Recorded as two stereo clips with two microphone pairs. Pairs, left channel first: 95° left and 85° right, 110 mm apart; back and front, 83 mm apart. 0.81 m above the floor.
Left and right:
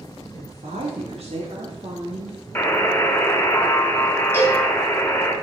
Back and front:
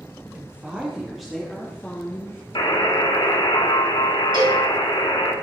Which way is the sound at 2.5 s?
165° left.